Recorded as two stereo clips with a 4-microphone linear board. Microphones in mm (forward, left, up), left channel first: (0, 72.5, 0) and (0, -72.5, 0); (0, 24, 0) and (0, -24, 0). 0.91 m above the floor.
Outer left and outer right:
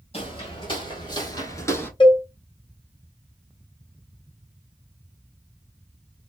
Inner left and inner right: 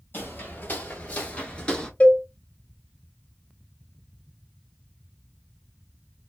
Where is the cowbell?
35° left (ahead or behind), 0.6 m.